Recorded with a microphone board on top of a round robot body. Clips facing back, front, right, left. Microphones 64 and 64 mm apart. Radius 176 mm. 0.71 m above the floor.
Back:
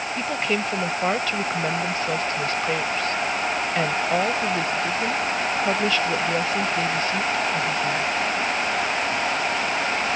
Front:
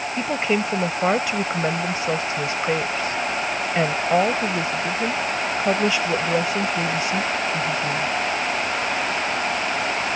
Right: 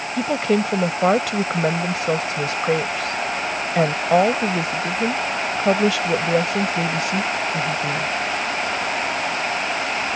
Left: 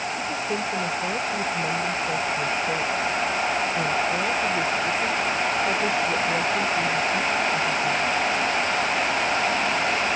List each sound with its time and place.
0.2 s a woman speaking: 75° right